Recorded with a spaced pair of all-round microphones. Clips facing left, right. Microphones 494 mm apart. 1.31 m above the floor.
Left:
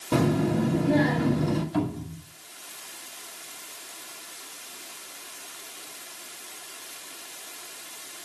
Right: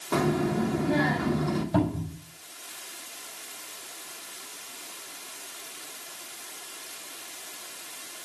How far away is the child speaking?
About 2.5 m.